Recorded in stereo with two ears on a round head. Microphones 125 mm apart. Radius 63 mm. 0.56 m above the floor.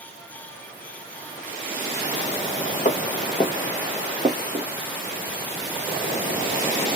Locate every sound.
2.9 s footsteps: 45° left (ahead or behind), 0.8 m; by 4.7 s 45° right (ahead or behind), 0.8 m